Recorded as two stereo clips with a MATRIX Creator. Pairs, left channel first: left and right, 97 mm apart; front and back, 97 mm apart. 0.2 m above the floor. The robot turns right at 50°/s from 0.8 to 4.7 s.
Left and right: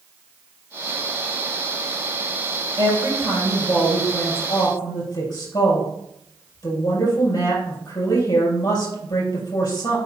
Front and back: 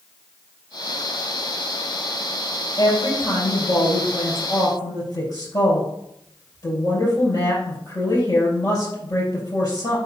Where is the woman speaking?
45° right, 4 m; by 10.0 s 50° left, 4 m.